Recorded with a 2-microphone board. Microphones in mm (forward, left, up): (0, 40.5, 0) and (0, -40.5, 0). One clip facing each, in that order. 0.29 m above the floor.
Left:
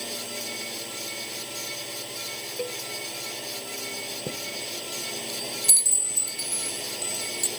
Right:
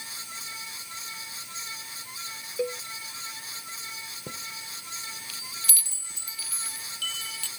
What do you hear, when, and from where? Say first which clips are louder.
0.0 s a drone: left 7 dB; 70° left (ahead or behind)
2.6 s a cowbell: right 4 dB; 15° right (ahead or behind)
4.3 s a chime: left 5 dB; 25° left (ahead or behind)